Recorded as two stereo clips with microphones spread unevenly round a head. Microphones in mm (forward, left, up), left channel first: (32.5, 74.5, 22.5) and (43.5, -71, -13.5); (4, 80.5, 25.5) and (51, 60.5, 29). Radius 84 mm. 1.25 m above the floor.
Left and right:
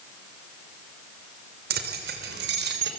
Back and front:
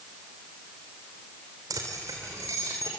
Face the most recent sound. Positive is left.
turn(degrees=-85)